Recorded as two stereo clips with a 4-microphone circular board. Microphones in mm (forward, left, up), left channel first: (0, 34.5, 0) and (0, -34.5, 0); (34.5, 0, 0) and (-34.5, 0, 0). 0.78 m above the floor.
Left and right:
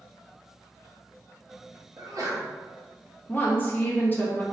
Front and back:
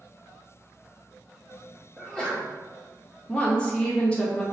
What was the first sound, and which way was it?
A sneeze, 80° right.